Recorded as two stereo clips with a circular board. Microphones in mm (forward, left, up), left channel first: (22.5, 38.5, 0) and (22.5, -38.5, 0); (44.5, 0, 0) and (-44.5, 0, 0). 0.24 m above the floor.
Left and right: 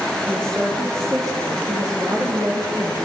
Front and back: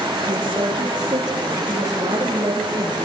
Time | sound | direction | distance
0.3 | a woman speaking | 145° right | 6.5 m